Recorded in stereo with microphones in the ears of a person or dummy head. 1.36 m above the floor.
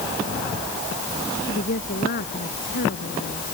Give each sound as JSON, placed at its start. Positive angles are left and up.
{"t": 1.4, "sound": "a woman speaking", "side_deg": 45}